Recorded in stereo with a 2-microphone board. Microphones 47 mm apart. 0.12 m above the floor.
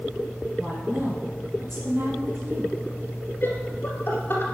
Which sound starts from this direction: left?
Laughter, at 3.4 s.